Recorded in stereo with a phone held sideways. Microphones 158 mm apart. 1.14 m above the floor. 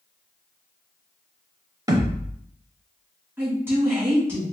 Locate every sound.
1.9 s a thud: 25° right (ahead or behind), 0.9 m
3.4 s a woman speaking: 15° right (ahead or behind), 1.9 m